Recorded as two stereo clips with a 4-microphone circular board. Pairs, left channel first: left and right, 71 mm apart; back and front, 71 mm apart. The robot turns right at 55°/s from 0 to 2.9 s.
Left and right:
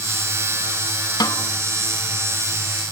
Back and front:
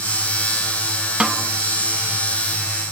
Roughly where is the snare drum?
Left.